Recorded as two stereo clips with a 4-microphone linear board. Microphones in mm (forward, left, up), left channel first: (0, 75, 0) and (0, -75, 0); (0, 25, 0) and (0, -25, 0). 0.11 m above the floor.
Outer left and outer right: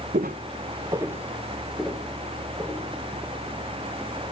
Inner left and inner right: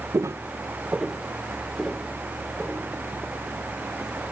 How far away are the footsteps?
About 0.6 m.